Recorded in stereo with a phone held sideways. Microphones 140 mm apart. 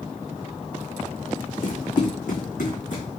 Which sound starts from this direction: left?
Running footsteps, at 1.6 s.